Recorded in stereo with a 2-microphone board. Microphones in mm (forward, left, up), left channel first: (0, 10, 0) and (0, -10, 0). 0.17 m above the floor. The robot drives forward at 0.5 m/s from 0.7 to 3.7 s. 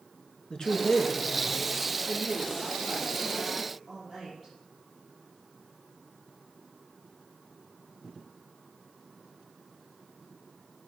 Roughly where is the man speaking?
Left.